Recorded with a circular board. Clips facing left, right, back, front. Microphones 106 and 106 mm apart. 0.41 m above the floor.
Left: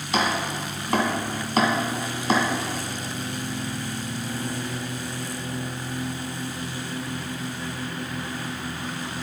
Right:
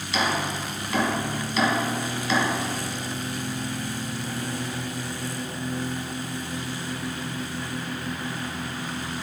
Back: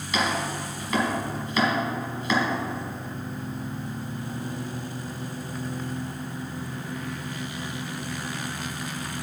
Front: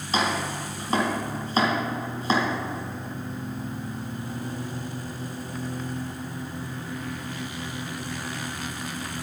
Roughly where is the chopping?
Ahead left.